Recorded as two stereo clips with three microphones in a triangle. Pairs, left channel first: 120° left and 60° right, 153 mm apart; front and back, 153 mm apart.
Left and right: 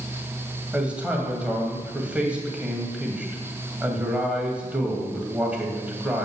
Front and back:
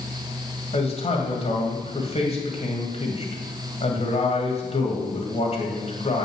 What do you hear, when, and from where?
0.7 s a man speaking: 20° left, 1.9 m